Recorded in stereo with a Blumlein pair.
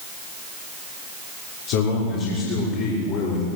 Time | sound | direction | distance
1.7 | a man speaking | 45° left | 6 m